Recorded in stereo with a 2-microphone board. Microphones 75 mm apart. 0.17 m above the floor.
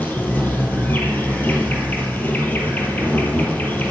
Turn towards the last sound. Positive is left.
turn(degrees=25)  # may be behind; listen again after turning